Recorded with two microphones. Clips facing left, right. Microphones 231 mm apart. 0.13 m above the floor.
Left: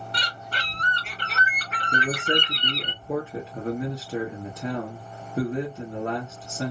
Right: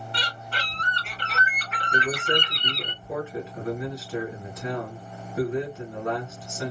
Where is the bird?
40° left (ahead or behind), 1.9 m.